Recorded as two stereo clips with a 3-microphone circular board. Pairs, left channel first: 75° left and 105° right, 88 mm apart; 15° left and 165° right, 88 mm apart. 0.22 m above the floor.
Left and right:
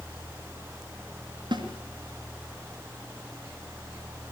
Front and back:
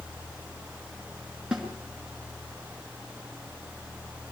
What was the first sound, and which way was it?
A snare drum, 85° right.